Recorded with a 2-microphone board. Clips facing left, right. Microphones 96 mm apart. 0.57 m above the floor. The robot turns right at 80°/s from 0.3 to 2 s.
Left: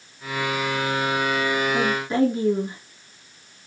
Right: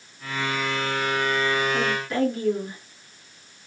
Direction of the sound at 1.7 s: 30° left (ahead or behind).